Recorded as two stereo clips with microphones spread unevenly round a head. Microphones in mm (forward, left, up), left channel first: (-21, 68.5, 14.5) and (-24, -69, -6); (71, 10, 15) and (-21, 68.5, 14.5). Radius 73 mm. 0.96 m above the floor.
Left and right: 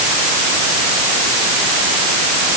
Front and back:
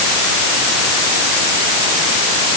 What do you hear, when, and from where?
Only background noise.